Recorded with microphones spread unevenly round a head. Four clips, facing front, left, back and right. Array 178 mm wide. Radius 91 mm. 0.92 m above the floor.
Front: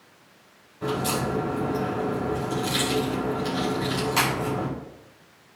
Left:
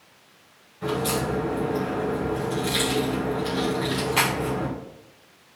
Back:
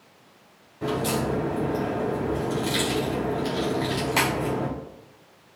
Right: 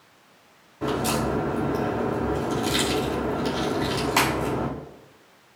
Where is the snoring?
No snoring in this recording.